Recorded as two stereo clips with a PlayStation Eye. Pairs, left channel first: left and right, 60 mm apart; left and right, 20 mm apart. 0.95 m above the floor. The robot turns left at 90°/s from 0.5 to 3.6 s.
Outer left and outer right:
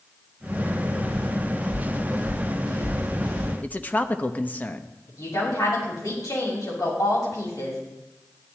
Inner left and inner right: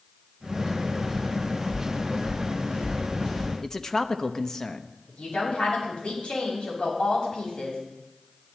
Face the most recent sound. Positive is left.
turn(degrees=75)  # may be behind; listen again after turning